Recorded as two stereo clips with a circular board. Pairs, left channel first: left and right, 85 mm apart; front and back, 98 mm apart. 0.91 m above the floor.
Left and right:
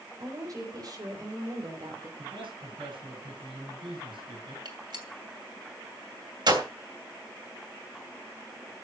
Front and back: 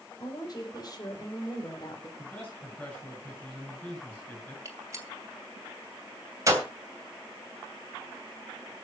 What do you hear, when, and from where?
0.2 s a woman speaking: 45° right, 4.5 m; by 2.1 s 50° right, 3 m
2.2 s a man speaking: 90° right, 9.5 m
4.7 s a gunshot: 120° right, 2.5 m